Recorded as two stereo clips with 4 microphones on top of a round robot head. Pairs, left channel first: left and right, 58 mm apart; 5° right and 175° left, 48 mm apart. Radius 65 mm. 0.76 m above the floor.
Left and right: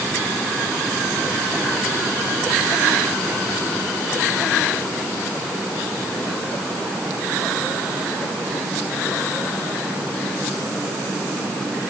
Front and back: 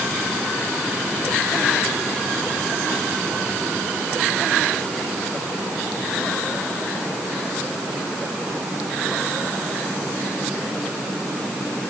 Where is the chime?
I don't hear a chime.